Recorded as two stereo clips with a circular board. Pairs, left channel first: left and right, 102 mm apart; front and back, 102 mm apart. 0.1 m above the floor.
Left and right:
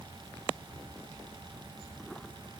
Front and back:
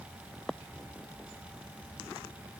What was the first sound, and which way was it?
Only background noise.